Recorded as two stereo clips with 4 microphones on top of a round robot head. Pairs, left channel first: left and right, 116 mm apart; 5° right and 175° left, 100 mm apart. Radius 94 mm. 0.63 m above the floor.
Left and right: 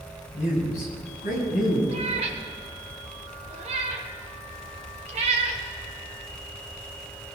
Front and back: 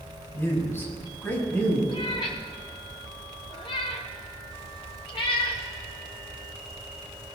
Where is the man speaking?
60° left, 6.5 m; by 1.8 s 70° left, 6 m.